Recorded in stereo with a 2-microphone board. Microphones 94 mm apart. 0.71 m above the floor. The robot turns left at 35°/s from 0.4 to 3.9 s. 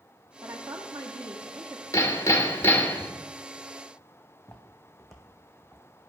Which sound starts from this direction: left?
Hammering, at 1.9 s.